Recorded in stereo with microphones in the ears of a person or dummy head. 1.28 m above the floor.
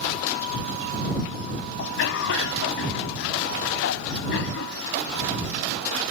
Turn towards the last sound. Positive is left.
turn(degrees=80)